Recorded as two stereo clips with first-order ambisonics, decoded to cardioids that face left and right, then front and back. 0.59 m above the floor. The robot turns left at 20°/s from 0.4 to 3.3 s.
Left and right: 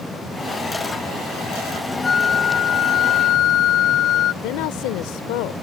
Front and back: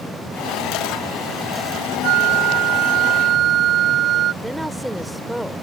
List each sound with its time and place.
2.0 s a flute: 160° left; by 4.3 s 135° left
4.4 s a woman speaking: 95° left